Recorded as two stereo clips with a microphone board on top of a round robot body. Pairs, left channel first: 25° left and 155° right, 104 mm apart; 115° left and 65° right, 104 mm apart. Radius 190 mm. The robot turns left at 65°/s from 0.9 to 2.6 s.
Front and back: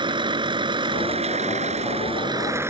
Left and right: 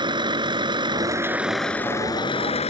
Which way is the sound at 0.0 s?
115° right.